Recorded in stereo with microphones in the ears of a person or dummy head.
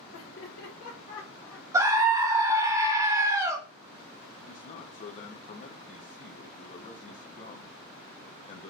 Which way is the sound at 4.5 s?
40° left (ahead or behind).